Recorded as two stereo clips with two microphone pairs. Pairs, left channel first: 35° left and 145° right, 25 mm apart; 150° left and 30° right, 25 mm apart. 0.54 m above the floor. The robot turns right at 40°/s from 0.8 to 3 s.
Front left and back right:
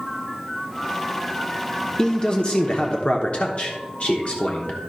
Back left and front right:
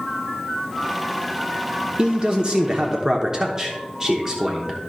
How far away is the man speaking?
About 0.9 m.